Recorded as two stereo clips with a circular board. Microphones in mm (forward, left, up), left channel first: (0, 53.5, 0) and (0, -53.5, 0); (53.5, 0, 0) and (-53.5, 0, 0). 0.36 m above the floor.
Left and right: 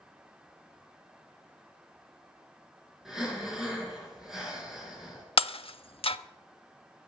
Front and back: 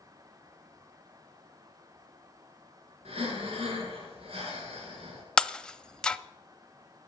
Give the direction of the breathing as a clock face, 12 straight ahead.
6 o'clock.